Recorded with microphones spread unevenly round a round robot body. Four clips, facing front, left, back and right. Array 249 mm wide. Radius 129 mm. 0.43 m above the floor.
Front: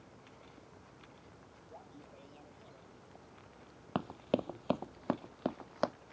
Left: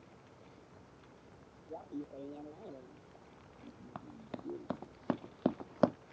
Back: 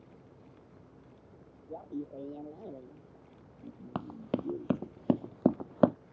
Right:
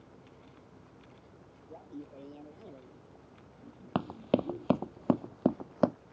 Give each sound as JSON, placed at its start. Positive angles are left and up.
{"t": 1.7, "sound": "laughter", "azimuth_deg": 170}
{"t": 4.0, "sound": "running footsteps", "azimuth_deg": -85}